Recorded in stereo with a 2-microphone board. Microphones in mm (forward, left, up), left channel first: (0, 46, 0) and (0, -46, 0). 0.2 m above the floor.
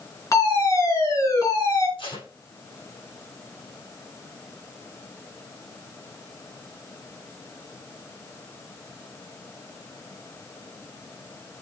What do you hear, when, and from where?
0.3 s a fire alarm: 40° left (ahead or behind), 3.5 m
2.0 s tape being pulled: 80° left, 7 m